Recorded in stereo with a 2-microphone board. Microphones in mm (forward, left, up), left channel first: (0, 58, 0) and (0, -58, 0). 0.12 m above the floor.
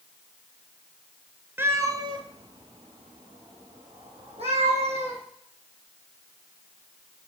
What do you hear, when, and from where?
1.6 s a cat meowing: 20° right (ahead or behind), 0.7 m; by 5.2 s 65° right (ahead or behind), 2.5 m